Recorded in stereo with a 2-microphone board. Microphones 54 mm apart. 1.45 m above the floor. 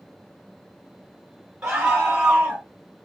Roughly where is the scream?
Centre.